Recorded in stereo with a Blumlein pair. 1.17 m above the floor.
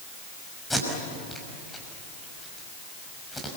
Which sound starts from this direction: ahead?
Tape being pulled, at 0.7 s.